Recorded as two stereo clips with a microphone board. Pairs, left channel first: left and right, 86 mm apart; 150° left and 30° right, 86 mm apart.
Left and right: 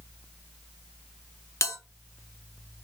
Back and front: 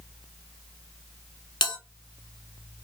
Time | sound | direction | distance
1.6 | a bell | 140° left | 0.9 m